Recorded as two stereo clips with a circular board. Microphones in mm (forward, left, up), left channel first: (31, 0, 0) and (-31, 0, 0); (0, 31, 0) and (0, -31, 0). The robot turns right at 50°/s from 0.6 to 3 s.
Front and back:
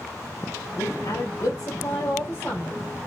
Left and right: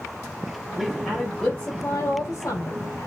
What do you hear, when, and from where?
0.8 s a woman speaking: 20° right, 4 m; by 3.1 s 90° left, 4 m